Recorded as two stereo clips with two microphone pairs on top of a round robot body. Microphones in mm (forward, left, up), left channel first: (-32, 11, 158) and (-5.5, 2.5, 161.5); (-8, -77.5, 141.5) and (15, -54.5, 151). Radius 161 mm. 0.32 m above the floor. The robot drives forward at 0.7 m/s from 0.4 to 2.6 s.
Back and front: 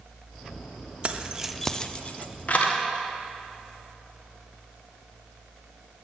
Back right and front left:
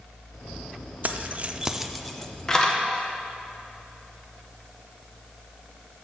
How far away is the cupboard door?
I don't hear a cupboard door.